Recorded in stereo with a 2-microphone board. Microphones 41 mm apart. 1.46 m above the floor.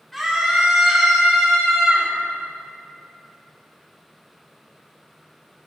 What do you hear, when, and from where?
0.1 s a scream: centre (ahead or behind), 3.5 m